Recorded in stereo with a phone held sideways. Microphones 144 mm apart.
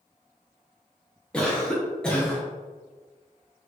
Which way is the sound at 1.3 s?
5° left (ahead or behind).